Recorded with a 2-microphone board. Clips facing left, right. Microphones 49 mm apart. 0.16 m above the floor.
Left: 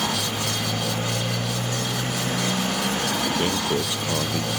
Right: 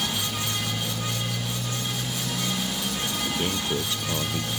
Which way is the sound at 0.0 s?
40° left (ahead or behind).